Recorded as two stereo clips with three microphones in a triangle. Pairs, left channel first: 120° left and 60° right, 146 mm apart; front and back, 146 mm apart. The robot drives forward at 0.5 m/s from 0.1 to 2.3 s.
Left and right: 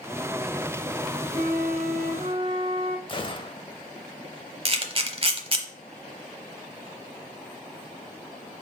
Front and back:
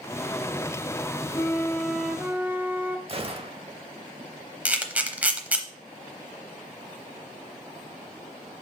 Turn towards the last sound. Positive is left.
turn(degrees=-100)